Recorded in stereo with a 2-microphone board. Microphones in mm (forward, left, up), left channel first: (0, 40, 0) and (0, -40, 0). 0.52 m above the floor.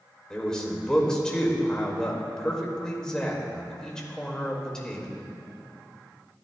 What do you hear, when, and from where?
0.3 s a man speaking: 10° left (ahead or behind), 2 m